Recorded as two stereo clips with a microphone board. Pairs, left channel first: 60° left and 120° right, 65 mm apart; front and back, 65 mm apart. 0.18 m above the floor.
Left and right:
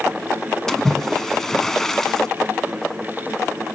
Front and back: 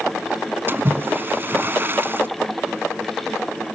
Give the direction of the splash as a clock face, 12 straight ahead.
7 o'clock.